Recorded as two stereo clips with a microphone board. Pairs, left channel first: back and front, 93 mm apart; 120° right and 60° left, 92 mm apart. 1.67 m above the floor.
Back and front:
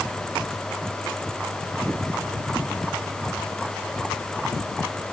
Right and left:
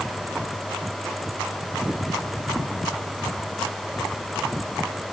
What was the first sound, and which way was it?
Only background noise.